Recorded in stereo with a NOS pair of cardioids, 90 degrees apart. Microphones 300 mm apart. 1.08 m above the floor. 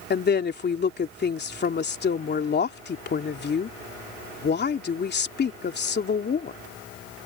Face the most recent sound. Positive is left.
turn(degrees=35)